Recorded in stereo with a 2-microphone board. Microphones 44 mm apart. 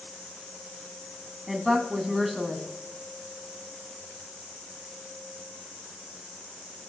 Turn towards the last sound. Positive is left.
turn(degrees=-5)  # may be behind; listen again after turning